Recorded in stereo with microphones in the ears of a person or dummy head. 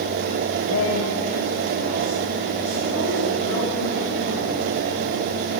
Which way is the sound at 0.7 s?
75° left (ahead or behind).